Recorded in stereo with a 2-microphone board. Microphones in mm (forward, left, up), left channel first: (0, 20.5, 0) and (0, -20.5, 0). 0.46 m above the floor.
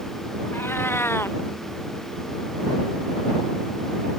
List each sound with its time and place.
0.5 s a cat meowing: 65° left (ahead or behind)